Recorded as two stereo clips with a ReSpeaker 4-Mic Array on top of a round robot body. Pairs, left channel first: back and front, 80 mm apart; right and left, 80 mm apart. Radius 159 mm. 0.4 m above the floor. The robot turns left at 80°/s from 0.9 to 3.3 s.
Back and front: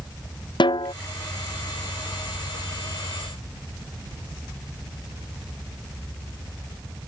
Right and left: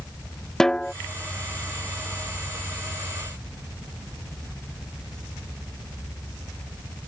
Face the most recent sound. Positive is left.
turn(degrees=-5)